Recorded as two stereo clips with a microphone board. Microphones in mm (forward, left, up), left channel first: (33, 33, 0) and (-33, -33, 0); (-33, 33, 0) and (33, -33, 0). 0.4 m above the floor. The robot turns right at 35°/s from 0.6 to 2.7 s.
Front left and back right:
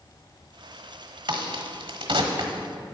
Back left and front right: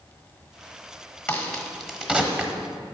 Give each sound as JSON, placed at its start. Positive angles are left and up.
{"t": 1.3, "sound": "a crack", "azimuth_deg": -155, "distance_m": 1.2}